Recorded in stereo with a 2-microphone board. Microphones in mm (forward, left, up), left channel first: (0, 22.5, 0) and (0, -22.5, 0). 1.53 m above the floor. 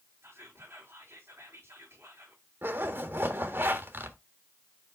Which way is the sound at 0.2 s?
65° right (ahead or behind).